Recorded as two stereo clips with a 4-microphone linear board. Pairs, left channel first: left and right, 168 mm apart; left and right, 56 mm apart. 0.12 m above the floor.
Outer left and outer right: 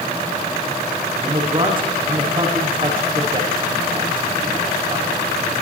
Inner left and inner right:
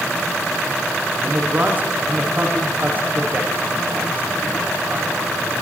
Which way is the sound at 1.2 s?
30° right (ahead or behind).